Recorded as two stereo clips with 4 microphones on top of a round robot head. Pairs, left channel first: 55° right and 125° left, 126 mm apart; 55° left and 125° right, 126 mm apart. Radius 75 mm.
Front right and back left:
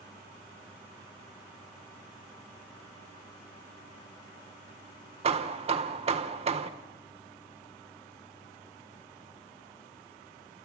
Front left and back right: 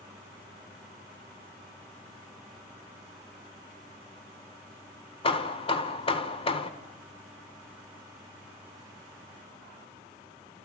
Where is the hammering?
95° left, 1.4 m.